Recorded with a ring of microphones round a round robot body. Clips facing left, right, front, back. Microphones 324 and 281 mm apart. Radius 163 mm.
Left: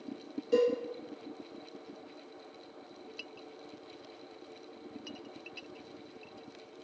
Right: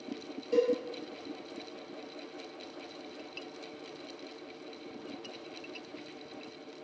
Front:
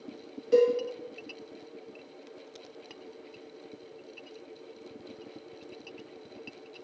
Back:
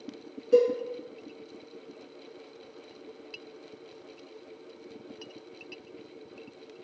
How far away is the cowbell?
About 1.6 m.